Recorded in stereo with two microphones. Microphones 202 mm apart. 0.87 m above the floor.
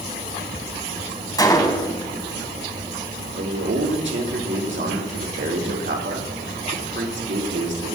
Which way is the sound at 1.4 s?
20° left (ahead or behind).